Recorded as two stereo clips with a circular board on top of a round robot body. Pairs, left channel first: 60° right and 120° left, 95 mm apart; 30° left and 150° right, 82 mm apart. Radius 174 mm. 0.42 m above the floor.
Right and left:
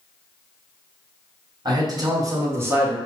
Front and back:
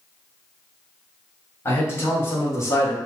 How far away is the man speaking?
About 1.9 m.